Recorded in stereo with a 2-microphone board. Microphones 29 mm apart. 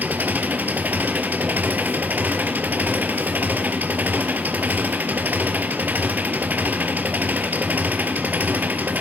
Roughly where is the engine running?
Right.